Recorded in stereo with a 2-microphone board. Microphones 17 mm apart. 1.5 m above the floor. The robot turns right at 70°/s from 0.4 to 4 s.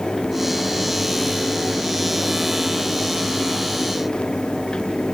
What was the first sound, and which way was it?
Only background noise.